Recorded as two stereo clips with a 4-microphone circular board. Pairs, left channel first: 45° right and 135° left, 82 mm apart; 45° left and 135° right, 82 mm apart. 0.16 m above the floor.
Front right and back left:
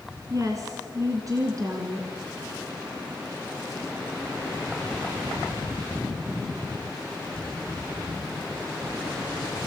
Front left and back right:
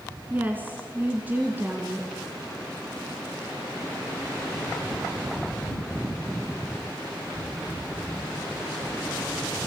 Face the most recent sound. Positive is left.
turn(degrees=165)